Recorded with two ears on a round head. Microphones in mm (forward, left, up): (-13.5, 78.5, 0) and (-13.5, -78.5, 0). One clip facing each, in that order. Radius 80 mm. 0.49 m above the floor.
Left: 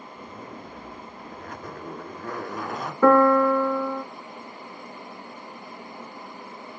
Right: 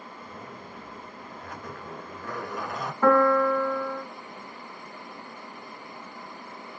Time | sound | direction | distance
0.2 | a zipper | 40° left (ahead or behind) | 1.0 m
3.0 | a piano | 65° left (ahead or behind) | 0.6 m